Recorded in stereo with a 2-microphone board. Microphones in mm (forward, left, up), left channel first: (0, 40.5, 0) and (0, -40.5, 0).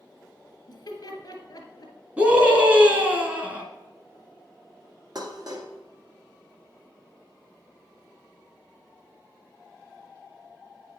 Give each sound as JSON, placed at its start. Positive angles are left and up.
{"t": 0.7, "sound": "laughter", "side_deg": 50, "distance_m": 1.9}
{"t": 2.2, "sound": "a scream", "side_deg": -25, "distance_m": 1.8}
{"t": 5.2, "sound": "dishes clattering", "side_deg": -55, "distance_m": 1.5}